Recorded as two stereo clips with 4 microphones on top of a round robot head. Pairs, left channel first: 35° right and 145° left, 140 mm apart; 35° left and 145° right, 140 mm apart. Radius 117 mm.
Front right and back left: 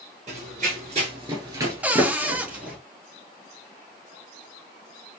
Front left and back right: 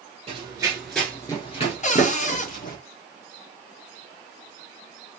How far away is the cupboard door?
About 0.8 m.